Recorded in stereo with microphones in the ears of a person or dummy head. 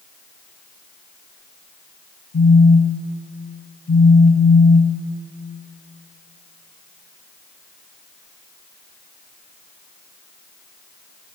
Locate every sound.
2.3 s a phone buzzing: 75° left (ahead or behind), 3 m